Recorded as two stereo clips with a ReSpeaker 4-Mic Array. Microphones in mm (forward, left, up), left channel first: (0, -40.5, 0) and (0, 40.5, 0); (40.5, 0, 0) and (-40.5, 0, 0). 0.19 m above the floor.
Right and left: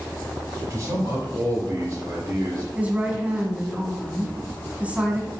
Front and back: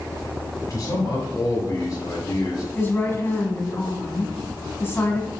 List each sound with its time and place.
0.7 s a man speaking: 45° left, 3 m
2.8 s a woman speaking: 35° left, 1.9 m